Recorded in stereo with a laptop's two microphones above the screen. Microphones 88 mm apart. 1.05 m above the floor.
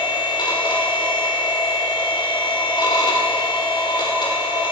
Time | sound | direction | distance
0.0 | a machine running | 65° left (ahead or behind) | 4 m